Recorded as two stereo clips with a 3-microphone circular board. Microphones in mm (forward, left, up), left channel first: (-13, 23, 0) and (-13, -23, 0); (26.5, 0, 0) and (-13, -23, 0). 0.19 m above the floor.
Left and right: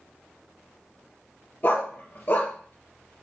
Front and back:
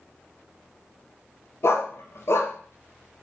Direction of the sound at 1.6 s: 45° left.